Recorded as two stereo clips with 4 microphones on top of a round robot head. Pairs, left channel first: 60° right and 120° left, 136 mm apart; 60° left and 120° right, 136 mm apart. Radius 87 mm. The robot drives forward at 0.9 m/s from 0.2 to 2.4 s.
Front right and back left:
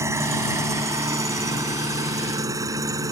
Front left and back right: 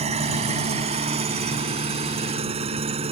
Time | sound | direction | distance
0.0 | an engine running | 165° right | ?